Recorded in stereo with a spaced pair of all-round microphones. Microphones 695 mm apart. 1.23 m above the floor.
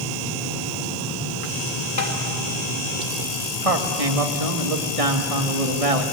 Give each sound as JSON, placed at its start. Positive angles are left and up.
{"t": 2.0, "sound": "tapping", "side_deg": 80, "distance_m": 3.0}
{"t": 3.6, "sound": "a man speaking", "side_deg": -55, "distance_m": 2.5}